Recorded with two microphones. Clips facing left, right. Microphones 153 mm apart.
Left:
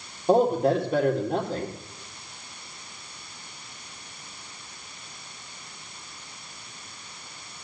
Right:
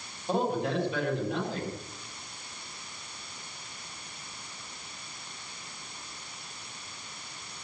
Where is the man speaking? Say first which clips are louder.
Left 9 dB; 45° left (ahead or behind), 4 m.